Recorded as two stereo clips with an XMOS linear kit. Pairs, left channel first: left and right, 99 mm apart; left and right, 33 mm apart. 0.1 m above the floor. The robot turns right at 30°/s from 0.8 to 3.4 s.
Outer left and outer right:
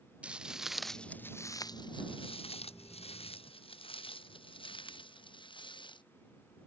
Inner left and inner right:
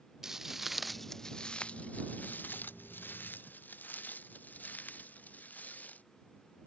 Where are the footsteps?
10° right (ahead or behind); by 6.0 s 55° left (ahead or behind).